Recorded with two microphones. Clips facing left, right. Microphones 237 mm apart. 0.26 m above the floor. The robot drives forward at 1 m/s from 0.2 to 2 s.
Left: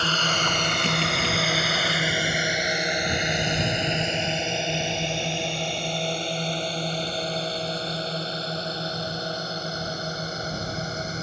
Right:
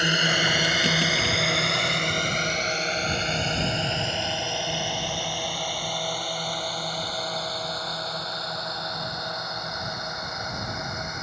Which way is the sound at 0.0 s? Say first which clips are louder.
Right 2 dB; 15° right (ahead or behind).